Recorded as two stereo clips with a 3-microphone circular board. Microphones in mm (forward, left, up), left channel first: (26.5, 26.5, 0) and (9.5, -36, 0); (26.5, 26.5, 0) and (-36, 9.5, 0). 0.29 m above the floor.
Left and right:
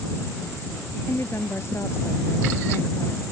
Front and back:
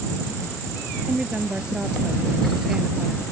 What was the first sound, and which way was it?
A woman speaking, 120° left.